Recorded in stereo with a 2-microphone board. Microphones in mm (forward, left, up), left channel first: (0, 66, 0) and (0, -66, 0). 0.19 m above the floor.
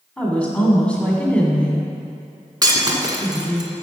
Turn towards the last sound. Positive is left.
turn(degrees=-30)  # may be behind; listen again after turning